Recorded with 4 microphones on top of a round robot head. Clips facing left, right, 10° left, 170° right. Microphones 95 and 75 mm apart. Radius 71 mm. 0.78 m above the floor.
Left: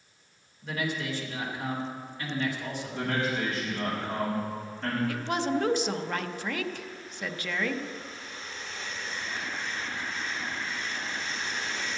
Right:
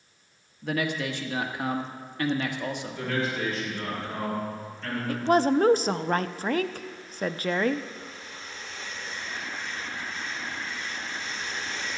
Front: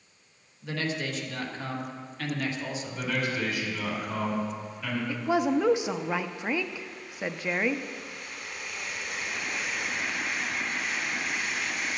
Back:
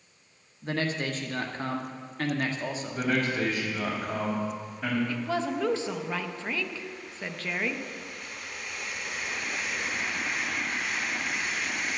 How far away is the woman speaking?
About 0.5 m.